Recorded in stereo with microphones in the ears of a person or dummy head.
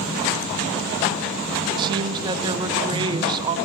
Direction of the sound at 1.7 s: 25° right (ahead or behind).